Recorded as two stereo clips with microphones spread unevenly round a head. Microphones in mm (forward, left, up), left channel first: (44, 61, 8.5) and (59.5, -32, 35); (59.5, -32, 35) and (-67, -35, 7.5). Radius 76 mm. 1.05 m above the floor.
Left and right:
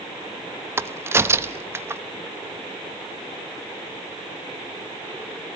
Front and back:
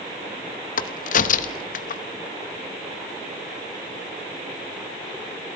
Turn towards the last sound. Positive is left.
turn(degrees=-15)